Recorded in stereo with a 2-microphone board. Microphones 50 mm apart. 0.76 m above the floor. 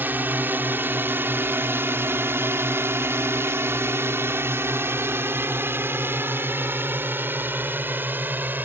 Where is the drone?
40° right (ahead or behind).